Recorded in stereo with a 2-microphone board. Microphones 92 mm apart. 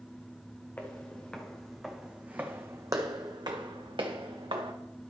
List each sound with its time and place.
0.8 s footsteps: 20° left (ahead or behind), 1.6 m; by 4.7 s 80° right, 1.8 m